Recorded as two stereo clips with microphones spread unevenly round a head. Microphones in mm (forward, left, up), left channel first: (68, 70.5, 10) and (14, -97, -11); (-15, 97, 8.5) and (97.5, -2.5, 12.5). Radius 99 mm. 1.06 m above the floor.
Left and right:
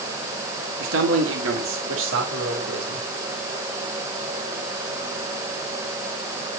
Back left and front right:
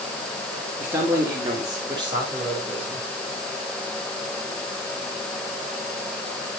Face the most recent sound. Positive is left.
turn(degrees=-105)